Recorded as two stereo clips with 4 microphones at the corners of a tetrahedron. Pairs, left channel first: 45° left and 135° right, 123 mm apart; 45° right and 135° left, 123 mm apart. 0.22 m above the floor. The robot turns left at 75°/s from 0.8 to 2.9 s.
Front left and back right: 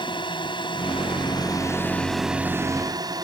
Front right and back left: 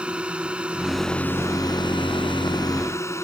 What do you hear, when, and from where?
0.0 s a drone: 60° left; by 3.2 s 100° right